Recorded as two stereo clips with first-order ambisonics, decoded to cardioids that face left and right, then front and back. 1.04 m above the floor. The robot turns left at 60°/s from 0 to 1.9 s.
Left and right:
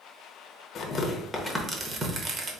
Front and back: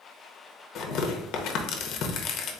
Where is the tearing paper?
35° left, 0.6 m; by 2.6 s 35° right, 0.6 m.